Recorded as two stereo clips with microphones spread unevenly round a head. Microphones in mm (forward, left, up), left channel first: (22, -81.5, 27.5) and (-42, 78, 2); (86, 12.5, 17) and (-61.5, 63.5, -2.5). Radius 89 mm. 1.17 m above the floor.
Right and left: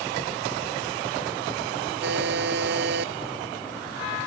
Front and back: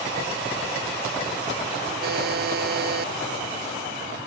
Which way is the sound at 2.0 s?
140° left.